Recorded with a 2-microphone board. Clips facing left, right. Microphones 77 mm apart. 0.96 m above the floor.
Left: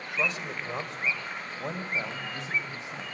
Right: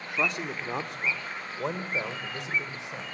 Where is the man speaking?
65° right (ahead or behind), 2.5 m; by 3.0 s 85° right, 5.5 m.